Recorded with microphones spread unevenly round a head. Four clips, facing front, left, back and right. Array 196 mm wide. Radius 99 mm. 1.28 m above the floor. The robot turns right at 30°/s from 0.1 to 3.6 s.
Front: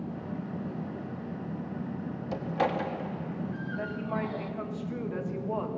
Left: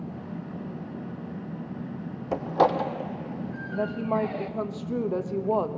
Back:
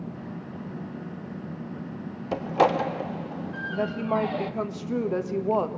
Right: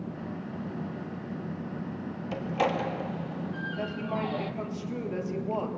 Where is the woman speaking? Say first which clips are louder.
Left 8 dB, back 10 dB; 145° left, 1.7 m.